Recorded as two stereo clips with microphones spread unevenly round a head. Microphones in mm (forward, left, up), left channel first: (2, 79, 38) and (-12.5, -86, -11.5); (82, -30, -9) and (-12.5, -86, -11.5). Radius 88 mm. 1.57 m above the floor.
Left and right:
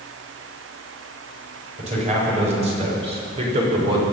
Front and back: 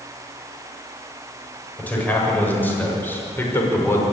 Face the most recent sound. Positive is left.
turn(degrees=-35)